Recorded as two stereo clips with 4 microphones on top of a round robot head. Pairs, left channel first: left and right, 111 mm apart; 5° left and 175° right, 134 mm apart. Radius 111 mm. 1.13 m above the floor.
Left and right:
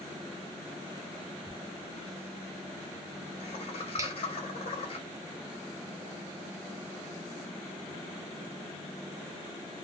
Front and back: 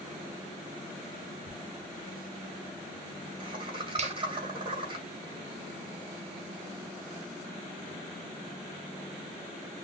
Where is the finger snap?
150° right, 0.7 m.